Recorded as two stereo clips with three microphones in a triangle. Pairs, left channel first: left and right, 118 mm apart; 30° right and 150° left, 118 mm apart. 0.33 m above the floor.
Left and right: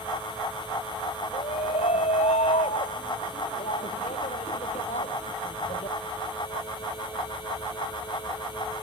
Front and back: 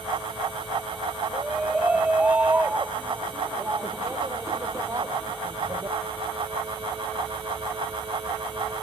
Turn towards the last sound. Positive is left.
turn(degrees=90)